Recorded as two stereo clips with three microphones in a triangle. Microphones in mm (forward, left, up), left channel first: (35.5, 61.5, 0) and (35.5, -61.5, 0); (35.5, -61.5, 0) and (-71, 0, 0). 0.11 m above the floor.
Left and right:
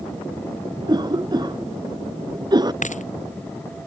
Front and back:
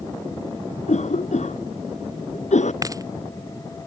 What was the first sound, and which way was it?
A cough, 35° right.